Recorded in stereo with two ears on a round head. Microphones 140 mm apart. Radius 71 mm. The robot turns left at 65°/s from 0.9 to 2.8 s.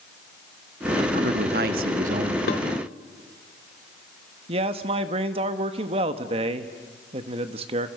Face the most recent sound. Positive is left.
turn(degrees=-35)  # may be behind; listen again after turning